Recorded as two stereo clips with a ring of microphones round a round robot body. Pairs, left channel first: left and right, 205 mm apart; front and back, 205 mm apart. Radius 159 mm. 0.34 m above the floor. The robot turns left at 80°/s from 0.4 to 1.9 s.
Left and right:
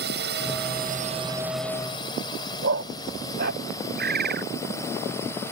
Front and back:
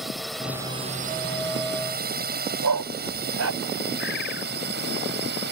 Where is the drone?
90° right; by 5.5 s 170° left.